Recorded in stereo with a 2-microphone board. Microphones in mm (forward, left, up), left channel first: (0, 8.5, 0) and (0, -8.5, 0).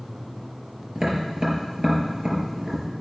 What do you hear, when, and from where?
0.9 s tapping: 45° right (ahead or behind), 4.5 m